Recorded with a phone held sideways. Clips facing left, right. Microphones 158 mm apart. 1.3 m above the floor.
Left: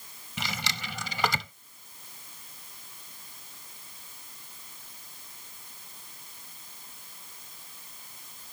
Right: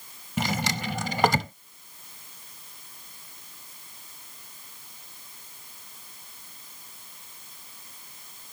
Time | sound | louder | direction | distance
0.4 | a drawer | right 9 dB | 50° right (ahead or behind) | ?